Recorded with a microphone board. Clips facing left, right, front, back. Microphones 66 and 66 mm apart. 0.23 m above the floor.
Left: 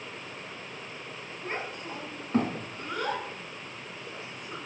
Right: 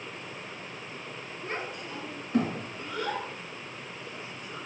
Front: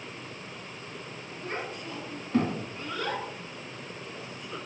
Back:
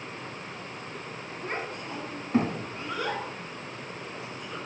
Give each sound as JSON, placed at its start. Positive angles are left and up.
{"t": 1.4, "sound": "a child speaking", "azimuth_deg": 150, "distance_m": 1.6}